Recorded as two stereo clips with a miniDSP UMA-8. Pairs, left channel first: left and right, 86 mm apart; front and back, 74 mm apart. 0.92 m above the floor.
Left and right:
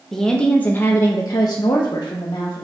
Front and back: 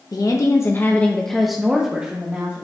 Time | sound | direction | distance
0.1 | a woman speaking | 5° left | 1.1 m